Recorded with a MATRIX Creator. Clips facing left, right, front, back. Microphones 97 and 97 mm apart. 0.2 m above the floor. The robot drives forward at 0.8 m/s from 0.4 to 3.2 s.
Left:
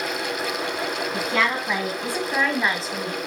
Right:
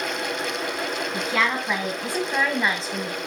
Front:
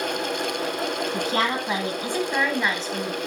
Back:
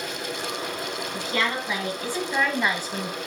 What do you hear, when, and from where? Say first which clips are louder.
1.1 s a woman speaking: even, front 1 dB; straight ahead, 1.5 m; by 3.2 s 175° left, 1.1 m